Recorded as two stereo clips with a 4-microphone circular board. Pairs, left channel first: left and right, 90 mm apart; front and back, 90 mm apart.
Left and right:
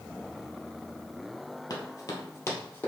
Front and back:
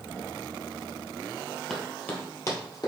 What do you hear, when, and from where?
1.7 s running footsteps: 80° left, 1.6 m; by 2.9 s 30° left, 2 m